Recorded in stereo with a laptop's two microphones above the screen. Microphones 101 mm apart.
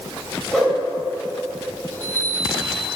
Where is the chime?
25° left (ahead or behind), 3 m.